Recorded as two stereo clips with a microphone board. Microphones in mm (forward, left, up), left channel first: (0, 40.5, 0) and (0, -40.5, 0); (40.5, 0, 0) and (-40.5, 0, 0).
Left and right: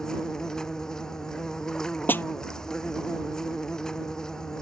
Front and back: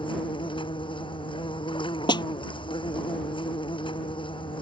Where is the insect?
5° left.